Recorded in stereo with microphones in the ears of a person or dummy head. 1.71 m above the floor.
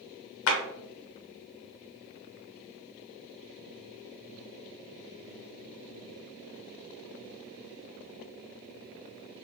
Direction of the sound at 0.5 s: 70° left (ahead or behind).